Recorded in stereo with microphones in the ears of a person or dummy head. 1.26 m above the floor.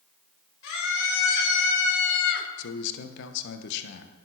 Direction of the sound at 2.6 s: 65° left (ahead or behind).